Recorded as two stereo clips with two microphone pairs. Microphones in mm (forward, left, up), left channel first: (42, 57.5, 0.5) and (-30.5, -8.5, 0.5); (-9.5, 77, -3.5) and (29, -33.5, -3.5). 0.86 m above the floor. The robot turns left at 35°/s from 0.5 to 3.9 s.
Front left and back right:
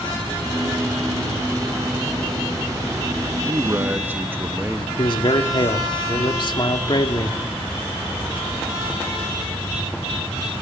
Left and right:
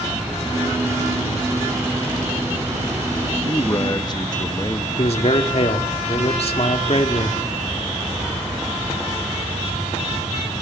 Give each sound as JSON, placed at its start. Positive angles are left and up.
{"t": 3.3, "sound": "a man speaking", "azimuth_deg": 175, "distance_m": 1.1}
{"t": 5.0, "sound": "a man speaking", "azimuth_deg": 80, "distance_m": 2.0}